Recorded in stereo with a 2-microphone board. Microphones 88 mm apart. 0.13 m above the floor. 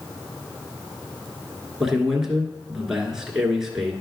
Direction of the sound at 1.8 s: 5° right (ahead or behind).